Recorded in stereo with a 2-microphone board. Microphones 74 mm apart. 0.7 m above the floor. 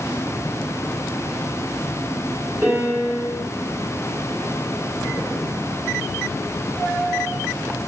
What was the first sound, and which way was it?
A piano, 20° right (ahead or behind).